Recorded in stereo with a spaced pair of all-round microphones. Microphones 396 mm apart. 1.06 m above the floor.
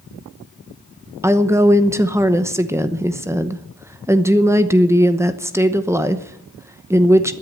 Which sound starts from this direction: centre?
A woman speaking, at 1.2 s.